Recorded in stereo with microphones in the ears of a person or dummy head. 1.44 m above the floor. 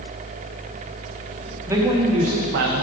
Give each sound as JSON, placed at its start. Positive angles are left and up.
{"t": 1.7, "sound": "a man speaking", "side_deg": -15, "distance_m": 0.8}